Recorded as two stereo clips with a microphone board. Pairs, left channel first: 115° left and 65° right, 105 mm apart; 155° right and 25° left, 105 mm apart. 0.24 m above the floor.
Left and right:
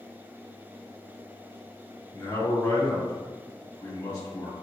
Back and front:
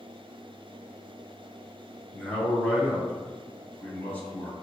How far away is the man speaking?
About 1.7 m.